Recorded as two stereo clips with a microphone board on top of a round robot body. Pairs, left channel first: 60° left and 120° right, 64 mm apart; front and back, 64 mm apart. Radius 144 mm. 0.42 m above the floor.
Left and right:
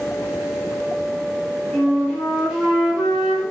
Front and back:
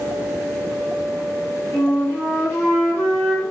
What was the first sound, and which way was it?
A flute, 40° right.